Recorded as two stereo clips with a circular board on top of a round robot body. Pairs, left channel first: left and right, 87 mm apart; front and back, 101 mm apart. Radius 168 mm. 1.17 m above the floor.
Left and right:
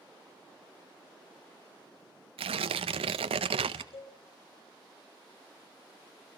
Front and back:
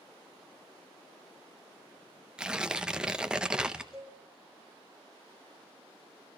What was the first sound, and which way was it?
Tearing paper, 95° right.